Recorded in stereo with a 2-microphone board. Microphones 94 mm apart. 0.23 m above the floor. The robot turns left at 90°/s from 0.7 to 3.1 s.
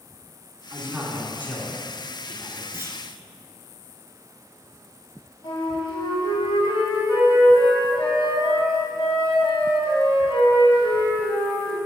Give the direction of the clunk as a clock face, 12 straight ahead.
1 o'clock.